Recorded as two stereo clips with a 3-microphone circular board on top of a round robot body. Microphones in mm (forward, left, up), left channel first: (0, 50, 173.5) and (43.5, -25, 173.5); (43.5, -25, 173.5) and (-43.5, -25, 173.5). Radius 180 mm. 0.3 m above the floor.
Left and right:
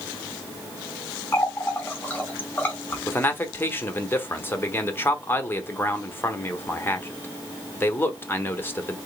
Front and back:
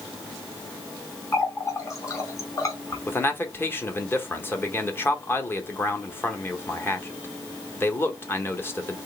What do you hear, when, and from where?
1.3 s a running tap: 55° left, 1.7 m
3.1 s a man speaking: 60° left, 1.4 m